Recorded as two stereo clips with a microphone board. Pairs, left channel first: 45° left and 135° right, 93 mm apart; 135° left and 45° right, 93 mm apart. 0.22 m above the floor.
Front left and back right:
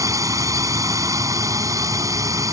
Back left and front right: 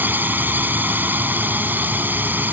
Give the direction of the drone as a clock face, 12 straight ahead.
4 o'clock.